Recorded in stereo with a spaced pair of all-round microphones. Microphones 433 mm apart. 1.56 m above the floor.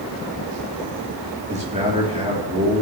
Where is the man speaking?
15° right (ahead or behind), 3 m.